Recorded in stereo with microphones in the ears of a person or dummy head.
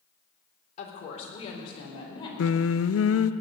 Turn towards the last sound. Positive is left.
turn(degrees=70)  # may be behind; listen again after turning